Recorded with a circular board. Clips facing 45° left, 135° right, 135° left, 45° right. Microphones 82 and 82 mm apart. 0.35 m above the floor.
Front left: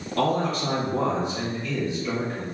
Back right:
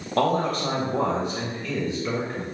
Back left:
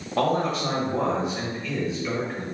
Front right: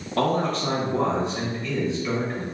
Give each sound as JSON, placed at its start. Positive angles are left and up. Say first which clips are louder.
{"t": 0.2, "sound": "a man speaking", "louder": "back right 1 dB, even", "azimuth_deg": -140, "distance_m": 1.1}